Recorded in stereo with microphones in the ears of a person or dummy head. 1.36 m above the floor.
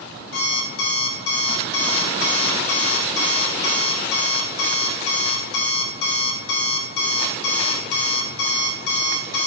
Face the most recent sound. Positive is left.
turn(degrees=60)  # may be behind; listen again after turning